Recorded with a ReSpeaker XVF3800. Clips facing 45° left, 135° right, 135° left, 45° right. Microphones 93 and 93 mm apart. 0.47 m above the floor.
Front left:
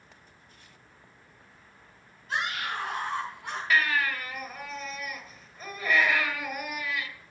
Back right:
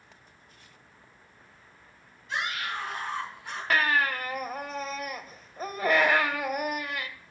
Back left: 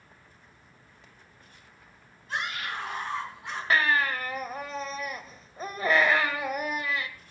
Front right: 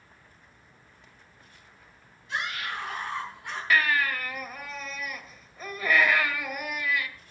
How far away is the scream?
About 4.5 m.